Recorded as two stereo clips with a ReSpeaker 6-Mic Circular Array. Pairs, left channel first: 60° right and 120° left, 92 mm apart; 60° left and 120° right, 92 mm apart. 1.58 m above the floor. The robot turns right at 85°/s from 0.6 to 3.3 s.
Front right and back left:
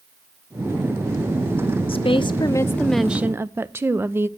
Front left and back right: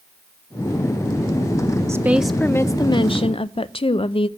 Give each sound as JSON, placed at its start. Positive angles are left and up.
{"t": 1.9, "sound": "a woman speaking", "azimuth_deg": -65, "distance_m": 0.6}